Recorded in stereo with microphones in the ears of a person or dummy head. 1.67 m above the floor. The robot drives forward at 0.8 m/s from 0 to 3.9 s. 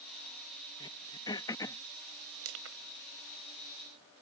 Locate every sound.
0.8 s throat clearing: 25° left (ahead or behind); by 1.8 s 20° left (ahead or behind)
2.4 s crushing: 80° right